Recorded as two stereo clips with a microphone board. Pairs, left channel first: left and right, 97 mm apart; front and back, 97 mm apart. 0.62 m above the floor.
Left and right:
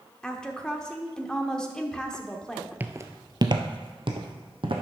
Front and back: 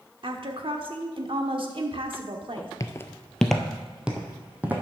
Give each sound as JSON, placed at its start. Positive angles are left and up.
{"t": 0.2, "sound": "a woman speaking", "azimuth_deg": 170, "distance_m": 1.1}
{"t": 2.8, "sound": "footsteps", "azimuth_deg": -30, "distance_m": 0.7}